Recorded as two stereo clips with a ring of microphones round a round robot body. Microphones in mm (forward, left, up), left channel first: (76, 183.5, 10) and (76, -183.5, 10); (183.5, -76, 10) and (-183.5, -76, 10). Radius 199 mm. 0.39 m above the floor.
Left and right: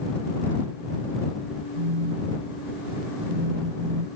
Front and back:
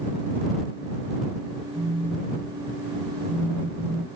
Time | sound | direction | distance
1.8 | a phone buzzing | 105° right | ?